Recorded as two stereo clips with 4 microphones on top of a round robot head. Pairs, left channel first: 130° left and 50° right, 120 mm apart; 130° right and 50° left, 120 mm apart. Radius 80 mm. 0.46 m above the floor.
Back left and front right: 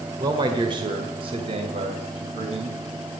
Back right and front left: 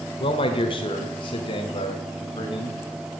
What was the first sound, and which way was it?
A man speaking, 95° right.